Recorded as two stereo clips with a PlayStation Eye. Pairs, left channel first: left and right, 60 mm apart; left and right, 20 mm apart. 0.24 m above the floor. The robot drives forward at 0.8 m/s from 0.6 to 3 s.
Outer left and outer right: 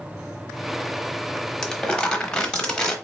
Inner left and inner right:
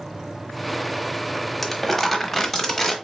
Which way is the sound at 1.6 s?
10° left (ahead or behind).